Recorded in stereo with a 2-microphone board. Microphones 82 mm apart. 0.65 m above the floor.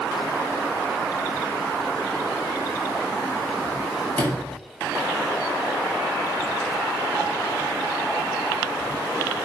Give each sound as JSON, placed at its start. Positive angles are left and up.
{"t": 4.2, "sound": "a sliding door", "side_deg": 20, "distance_m": 4.0}